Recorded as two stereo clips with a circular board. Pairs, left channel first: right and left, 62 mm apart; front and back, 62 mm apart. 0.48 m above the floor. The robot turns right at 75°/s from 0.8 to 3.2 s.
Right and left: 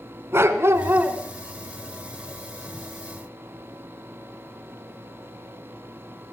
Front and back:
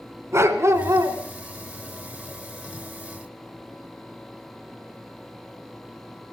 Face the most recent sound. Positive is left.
turn(degrees=-40)